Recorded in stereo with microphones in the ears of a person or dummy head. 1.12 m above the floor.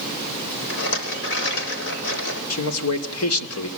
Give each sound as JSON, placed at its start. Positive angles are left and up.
{"t": 0.7, "sound": "a rattle", "side_deg": 70, "distance_m": 6.0}
{"t": 2.5, "sound": "a man speaking", "side_deg": 90, "distance_m": 2.5}